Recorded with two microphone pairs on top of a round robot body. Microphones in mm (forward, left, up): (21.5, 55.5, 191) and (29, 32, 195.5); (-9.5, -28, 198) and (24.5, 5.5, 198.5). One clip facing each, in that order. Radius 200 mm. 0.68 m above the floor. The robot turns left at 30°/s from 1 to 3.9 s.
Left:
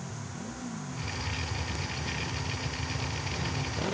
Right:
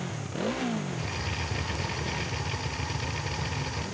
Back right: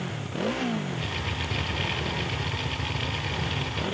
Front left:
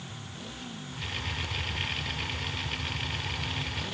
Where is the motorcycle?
105° right; by 3.9 s 170° left.